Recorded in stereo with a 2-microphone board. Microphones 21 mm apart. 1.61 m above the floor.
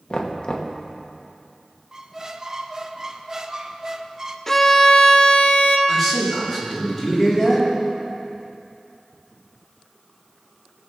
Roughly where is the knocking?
Left.